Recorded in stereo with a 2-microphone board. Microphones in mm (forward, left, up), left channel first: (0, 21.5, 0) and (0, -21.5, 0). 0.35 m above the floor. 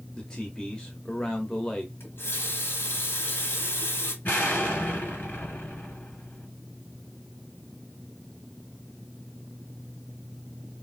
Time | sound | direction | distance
0.2 | a man speaking | 15° left (ahead or behind) | 1.0 m
2.0 | a running tap | 60° left (ahead or behind) | 1.7 m
4.2 | an explosion | 45° left (ahead or behind) | 1.9 m